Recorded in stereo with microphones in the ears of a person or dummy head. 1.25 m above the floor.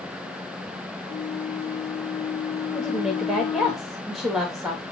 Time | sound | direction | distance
1.1 | a flute | 35° left (ahead or behind) | 0.7 m
2.7 | a woman speaking | centre (ahead or behind) | 1.9 m